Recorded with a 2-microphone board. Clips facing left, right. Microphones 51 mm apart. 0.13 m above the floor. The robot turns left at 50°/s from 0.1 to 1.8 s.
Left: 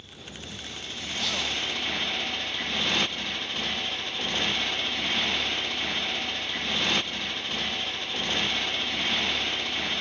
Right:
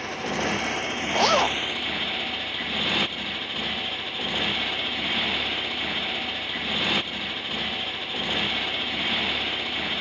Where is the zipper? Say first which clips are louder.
Right 10 dB; 70° right (ahead or behind); by 1.6 s 50° right (ahead or behind).